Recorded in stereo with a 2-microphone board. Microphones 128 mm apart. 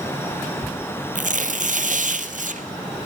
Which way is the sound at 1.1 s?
75° right (ahead or behind).